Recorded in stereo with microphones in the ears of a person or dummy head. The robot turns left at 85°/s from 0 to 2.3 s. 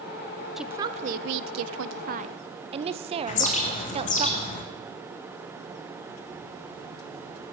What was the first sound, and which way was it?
A woman speaking, 5° left.